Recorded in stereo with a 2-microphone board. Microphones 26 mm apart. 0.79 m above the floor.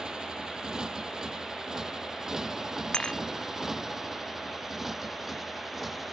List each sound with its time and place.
0.0 s a motorcycle: 30° right (ahead or behind); by 6.1 s 10° right (ahead or behind)
2.9 s dishes clattering: 40° left (ahead or behind)